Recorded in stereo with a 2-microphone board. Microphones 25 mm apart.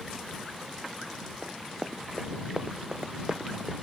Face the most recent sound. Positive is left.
turn(degrees=-35)  # may be behind; listen again after turning